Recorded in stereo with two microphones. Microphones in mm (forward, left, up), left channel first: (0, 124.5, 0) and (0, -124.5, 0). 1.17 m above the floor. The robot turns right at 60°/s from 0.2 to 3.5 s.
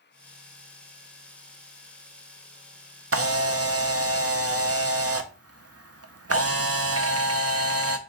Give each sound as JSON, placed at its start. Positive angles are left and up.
{"t": 3.1, "sound": "a camera shutter", "side_deg": -65, "distance_m": 0.5}